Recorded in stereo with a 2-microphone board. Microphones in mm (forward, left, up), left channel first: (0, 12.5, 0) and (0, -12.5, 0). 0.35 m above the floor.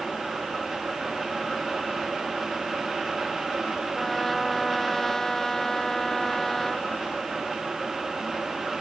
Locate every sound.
3.9 s a trumpet: 15° left (ahead or behind)